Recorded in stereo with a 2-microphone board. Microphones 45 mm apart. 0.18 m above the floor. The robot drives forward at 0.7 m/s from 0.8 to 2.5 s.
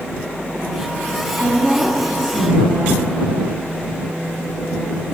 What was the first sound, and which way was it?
A woman speaking, 35° right (ahead or behind).